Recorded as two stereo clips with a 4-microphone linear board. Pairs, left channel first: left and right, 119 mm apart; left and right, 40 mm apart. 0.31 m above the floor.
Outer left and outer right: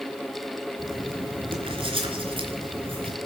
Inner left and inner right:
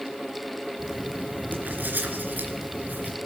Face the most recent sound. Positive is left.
turn(degrees=-50)  # may be behind; listen again after turning